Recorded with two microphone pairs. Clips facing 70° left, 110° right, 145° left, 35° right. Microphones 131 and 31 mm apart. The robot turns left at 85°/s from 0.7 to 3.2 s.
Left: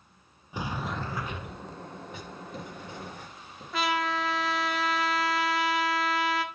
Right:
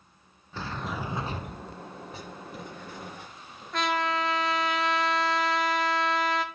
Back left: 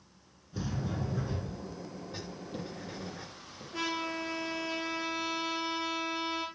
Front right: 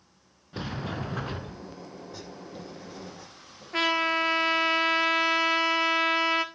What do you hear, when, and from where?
0.5 s a sliding door: 5° right, 0.6 m; by 1.8 s 95° right, 0.6 m
2.1 s writing: 155° right, 3 m; by 3.6 s 110° left, 3 m
3.7 s a trumpet: 15° right, 0.8 m